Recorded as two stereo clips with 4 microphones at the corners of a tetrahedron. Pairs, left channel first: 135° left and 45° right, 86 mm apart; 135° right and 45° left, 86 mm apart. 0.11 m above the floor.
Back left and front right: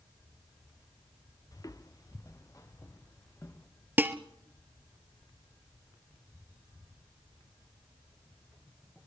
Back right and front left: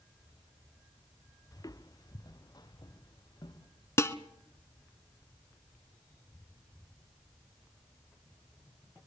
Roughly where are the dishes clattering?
Right.